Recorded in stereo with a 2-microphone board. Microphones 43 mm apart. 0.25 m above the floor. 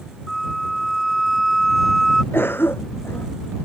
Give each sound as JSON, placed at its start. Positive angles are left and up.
{"t": 0.3, "sound": "a flute", "side_deg": 0}
{"t": 2.3, "sound": "a cough", "side_deg": 60}